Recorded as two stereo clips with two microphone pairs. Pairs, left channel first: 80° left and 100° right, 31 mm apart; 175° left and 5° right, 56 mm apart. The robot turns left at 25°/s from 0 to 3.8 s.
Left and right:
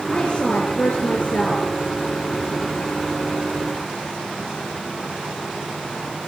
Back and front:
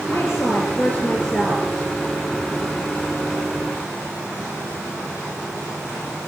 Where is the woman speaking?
135° left, 3.5 m; by 1.7 s 100° left, 3.5 m.